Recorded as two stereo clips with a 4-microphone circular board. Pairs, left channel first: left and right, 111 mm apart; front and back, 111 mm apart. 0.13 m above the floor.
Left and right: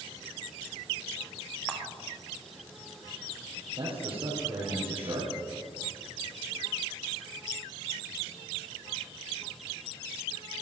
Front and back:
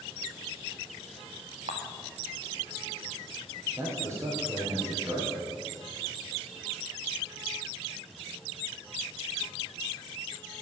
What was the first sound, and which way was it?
A camera shutter, 175° left.